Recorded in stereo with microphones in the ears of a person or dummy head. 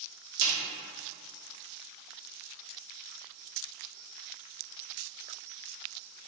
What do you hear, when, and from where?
0.4 s a snare drum: 60° right (ahead or behind), 1.2 m